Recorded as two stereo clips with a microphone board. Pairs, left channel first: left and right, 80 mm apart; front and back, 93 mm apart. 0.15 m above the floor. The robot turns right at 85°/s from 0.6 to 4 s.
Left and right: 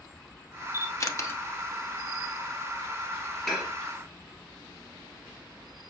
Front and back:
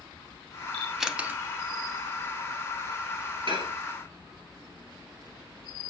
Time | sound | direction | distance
0.7 | a camera shutter | 75° left | 0.7 m
3.5 | dishes clattering | straight behind | 1.5 m